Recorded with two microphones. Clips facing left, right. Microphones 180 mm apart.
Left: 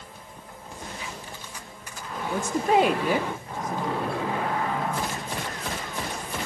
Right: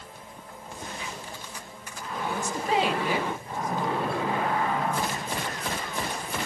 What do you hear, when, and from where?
2.3 s a woman speaking: 55° left (ahead or behind), 0.7 m; by 4.4 s 40° left (ahead or behind), 1.6 m